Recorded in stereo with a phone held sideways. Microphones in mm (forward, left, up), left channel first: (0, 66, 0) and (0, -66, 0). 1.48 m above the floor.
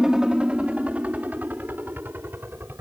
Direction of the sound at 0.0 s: 5° right (ahead or behind).